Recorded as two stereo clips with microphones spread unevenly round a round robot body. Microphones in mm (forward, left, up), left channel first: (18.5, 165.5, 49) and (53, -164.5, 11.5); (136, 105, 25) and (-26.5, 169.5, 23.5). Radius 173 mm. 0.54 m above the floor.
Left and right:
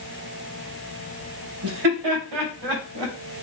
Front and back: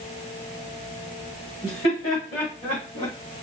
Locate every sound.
1.6 s laughter: 95° right, 2.5 m; by 3.1 s 80° right, 3 m